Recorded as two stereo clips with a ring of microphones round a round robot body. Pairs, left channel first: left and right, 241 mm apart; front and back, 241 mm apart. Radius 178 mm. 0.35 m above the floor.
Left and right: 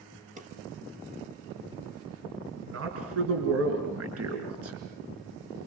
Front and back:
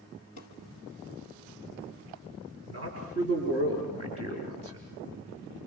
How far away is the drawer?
About 3.5 m.